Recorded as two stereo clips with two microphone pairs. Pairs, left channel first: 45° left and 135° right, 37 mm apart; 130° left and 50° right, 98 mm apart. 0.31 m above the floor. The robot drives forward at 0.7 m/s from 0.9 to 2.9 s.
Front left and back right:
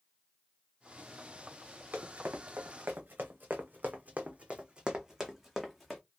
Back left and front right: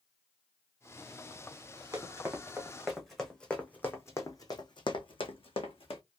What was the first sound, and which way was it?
Running footsteps, 100° right.